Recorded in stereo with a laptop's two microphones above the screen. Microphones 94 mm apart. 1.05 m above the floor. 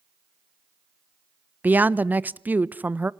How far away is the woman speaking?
About 0.7 m.